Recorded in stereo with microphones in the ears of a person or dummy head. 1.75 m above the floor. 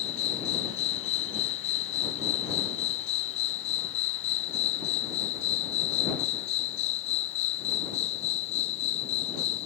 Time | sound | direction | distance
0.0 | an insect | 40° left (ahead or behind) | ?